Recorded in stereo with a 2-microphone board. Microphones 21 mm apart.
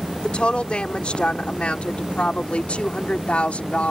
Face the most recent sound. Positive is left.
turn(degrees=80)